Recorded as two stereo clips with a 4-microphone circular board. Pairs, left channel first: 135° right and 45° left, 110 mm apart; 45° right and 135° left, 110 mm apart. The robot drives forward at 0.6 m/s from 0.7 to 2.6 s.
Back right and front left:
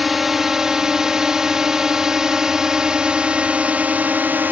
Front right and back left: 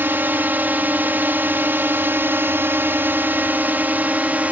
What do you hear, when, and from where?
0.0 s a drone: 130° left; by 4.5 s 85° left